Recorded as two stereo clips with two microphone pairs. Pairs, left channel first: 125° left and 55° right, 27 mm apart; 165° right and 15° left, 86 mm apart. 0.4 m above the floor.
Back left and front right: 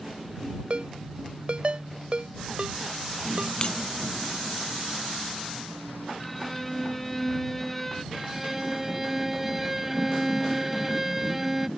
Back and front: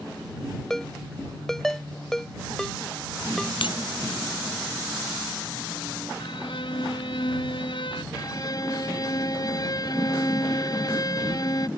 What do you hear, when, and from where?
0.7 s a ringtone: 80° right
3.6 s breaking glass: straight behind
6.2 s a violin: 155° right
8.1 s a violin: 130° right